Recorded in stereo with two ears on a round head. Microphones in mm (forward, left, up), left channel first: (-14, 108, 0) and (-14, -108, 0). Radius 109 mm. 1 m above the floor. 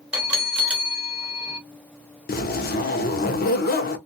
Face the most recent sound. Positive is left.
turn(degrees=40)  # may be behind; listen again after turning